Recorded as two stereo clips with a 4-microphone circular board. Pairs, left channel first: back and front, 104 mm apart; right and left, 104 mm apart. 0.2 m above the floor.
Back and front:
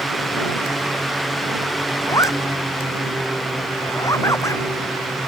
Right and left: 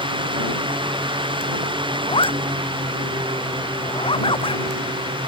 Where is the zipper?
120° right.